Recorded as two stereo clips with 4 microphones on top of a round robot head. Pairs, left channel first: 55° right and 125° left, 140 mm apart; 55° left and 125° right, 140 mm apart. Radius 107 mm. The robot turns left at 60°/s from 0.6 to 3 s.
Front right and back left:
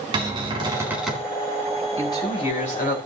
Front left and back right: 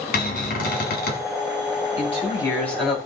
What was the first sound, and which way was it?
A cupboard door, 70° left.